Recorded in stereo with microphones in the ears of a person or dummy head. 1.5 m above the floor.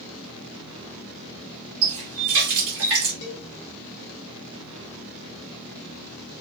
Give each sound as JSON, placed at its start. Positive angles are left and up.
{"t": 1.8, "sound": "a running tap", "side_deg": -70, "distance_m": 1.8}
{"t": 3.2, "sound": "a cowbell", "side_deg": 65, "distance_m": 1.2}